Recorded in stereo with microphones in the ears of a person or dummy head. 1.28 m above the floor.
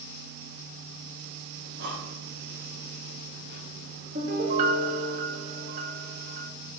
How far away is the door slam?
No door slam in this recording.